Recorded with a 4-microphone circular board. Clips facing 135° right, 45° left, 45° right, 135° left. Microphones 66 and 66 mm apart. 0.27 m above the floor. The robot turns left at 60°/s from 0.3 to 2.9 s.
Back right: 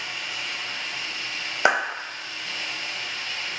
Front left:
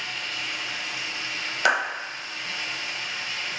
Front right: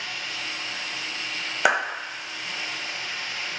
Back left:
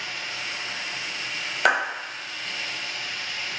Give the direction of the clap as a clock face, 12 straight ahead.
4 o'clock.